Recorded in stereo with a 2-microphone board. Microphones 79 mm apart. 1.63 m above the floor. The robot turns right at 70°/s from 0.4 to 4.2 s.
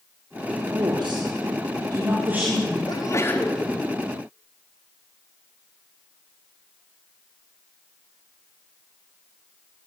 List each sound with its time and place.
0.7 s a woman speaking: 135° right, 5.5 m; by 2.8 s 10° left, 5.5 m
2.9 s a sneeze: 120° left, 4 m; by 3.6 s 175° left, 4 m